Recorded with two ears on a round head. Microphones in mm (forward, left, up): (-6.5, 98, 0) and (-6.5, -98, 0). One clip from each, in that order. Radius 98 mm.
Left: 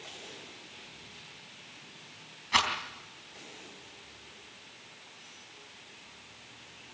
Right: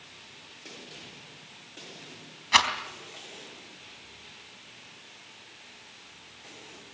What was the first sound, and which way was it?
A rattle, 30° right (ahead or behind).